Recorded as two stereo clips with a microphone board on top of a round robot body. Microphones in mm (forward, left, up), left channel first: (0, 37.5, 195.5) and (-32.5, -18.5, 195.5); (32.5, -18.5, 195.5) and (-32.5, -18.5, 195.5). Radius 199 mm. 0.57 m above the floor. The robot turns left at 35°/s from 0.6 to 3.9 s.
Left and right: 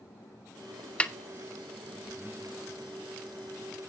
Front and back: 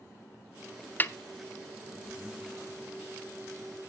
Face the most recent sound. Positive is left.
turn(degrees=-95)